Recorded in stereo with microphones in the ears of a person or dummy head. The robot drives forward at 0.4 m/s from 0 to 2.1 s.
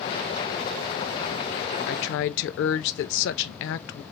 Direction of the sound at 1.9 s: 65° left (ahead or behind).